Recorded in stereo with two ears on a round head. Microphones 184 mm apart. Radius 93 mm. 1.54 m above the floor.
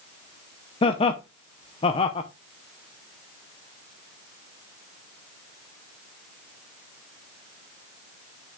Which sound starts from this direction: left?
Laughter, at 0.8 s.